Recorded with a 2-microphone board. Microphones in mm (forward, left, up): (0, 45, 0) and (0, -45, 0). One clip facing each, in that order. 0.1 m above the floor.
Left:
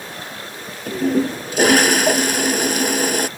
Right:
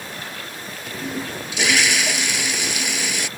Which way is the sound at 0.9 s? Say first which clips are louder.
Left 11 dB; 45° left (ahead or behind).